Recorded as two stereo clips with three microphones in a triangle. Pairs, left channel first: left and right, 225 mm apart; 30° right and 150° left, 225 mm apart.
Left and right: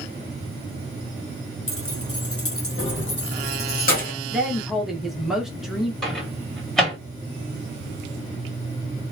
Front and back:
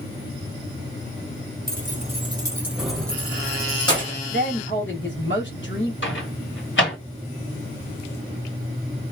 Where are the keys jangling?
105° left, 0.8 m; by 4.2 s 35° left, 1.6 m.